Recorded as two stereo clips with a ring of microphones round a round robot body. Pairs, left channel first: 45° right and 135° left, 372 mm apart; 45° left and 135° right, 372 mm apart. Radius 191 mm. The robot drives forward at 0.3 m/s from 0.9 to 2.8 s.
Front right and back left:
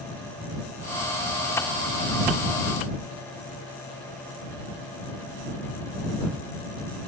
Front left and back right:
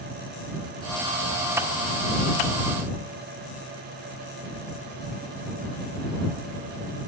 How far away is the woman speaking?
No woman speaking in this recording.